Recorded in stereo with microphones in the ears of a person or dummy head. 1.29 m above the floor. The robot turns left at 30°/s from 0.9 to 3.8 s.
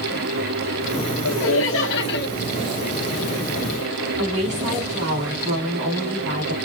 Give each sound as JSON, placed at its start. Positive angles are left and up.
{"t": 1.2, "sound": "laughter", "azimuth_deg": 95, "distance_m": 1.1}
{"t": 4.2, "sound": "a woman speaking", "side_deg": -70, "distance_m": 2.5}